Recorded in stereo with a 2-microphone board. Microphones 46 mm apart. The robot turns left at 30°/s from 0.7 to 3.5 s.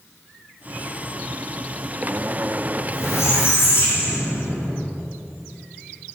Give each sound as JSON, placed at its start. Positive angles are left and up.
{"t": 2.8, "sound": "a squeak", "side_deg": 70, "distance_m": 4.5}